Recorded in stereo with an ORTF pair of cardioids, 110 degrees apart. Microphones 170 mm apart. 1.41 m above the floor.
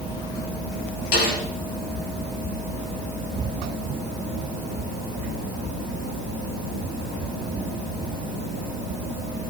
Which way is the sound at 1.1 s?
65° left.